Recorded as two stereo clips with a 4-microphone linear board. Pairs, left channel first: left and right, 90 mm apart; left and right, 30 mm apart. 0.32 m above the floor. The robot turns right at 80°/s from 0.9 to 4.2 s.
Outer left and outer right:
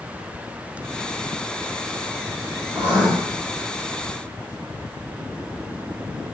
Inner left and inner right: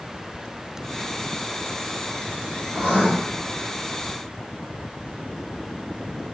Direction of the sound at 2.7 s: 55° right (ahead or behind).